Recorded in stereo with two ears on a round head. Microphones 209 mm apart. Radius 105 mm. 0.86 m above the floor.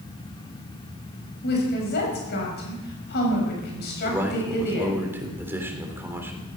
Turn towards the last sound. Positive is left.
turn(degrees=-10)  # may be behind; listen again after turning